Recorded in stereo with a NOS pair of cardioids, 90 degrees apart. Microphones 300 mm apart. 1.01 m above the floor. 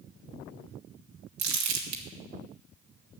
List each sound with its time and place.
1.4 s crumpling: 70° right, 1.8 m